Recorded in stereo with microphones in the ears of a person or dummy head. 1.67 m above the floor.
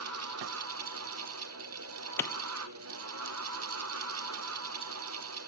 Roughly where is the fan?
Right.